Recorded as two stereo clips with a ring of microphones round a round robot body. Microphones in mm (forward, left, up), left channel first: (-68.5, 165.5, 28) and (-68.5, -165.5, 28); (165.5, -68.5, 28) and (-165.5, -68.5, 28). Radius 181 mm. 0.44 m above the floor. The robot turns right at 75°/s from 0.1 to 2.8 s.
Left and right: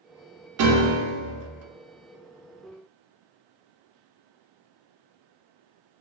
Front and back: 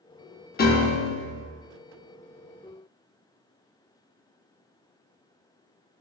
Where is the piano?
60° right, 0.5 m; by 1.4 s 5° left, 0.5 m.